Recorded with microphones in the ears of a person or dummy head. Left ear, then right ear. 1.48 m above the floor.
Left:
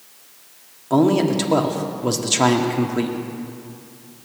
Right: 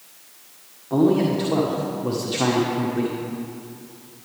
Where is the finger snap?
No finger snap in this recording.